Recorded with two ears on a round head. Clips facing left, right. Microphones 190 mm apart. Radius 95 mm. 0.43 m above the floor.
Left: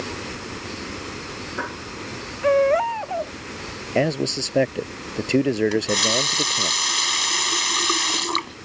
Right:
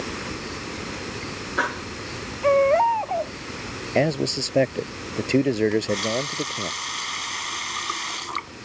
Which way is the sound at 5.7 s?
60° left (ahead or behind).